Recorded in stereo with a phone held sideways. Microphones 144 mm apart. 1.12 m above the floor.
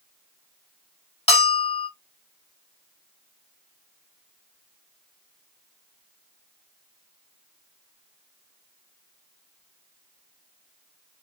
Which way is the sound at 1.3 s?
45° left (ahead or behind).